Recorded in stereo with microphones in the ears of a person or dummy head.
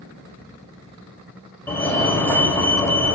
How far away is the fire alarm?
About 1.5 m.